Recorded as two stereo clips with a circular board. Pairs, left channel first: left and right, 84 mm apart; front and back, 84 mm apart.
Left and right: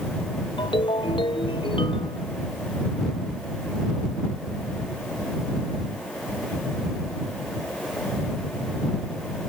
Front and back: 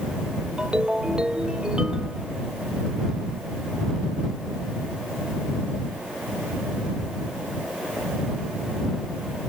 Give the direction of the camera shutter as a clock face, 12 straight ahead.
I don't hear a camera shutter.